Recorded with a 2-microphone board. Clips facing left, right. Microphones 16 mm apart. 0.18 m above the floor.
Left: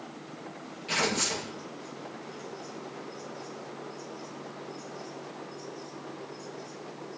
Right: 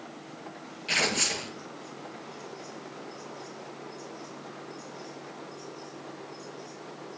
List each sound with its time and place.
0.9 s tearing paper: 25° right (ahead or behind), 1.3 m